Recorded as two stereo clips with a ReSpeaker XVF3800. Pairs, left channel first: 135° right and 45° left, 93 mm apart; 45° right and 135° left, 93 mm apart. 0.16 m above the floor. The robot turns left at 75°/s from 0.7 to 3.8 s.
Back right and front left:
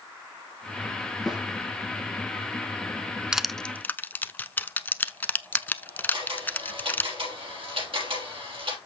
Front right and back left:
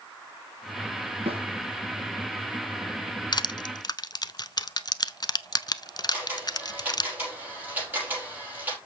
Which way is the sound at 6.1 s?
65° left.